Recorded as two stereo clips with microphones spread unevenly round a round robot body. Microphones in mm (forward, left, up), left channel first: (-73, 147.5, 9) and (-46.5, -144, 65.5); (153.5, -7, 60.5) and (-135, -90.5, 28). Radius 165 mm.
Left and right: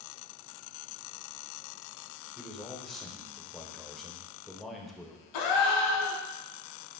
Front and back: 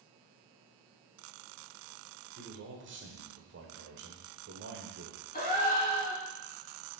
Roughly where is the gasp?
Left.